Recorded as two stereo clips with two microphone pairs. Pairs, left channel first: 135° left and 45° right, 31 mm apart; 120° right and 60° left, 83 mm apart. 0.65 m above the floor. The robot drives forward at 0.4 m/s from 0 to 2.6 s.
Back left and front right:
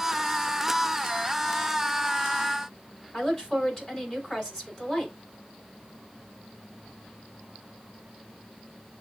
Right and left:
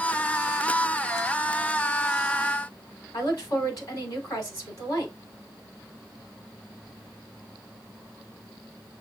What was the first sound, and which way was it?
A woman speaking, 155° right.